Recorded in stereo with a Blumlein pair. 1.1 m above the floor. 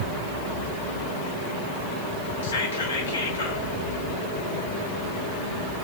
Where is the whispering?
70° left, 1.7 m.